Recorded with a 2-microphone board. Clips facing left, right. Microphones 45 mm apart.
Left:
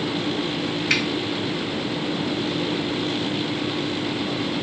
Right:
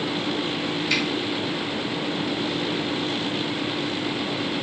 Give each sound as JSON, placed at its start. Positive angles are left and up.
{"t": 0.9, "sound": "a finger snap", "side_deg": 55, "distance_m": 2.0}